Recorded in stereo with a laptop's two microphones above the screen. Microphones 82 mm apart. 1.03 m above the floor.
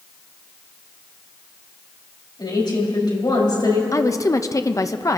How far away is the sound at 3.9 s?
About 0.8 m.